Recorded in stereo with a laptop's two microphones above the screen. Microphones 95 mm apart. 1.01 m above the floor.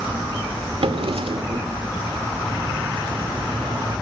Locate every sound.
0.8 s a drawer: 85° right, 1.8 m